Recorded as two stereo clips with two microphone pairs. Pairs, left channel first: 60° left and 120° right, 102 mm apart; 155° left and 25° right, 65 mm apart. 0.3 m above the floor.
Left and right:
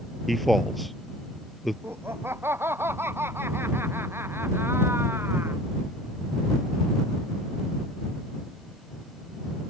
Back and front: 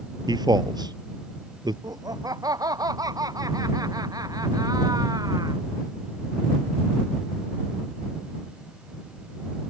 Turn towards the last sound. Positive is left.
turn(degrees=-50)